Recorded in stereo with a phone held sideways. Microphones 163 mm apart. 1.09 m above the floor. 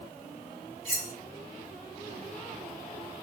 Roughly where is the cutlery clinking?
Right.